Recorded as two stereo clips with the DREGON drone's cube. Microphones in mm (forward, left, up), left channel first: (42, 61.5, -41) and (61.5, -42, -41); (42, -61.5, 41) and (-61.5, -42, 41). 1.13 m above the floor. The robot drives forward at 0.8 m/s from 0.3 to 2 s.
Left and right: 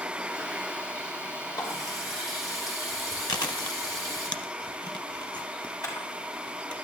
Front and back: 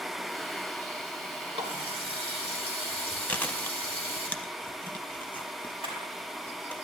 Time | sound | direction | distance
1.5 | a running tap | 150° left | 3 m
3.3 | chewing | 60° left | 0.7 m
5.8 | a camera shutter | 150° left | 5.5 m